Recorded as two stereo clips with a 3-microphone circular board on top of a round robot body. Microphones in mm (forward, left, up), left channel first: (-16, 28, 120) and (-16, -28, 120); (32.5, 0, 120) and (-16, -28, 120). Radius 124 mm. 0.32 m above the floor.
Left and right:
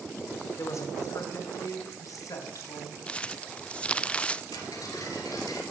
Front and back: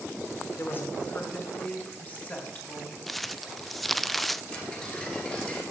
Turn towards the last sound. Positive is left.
turn(degrees=105)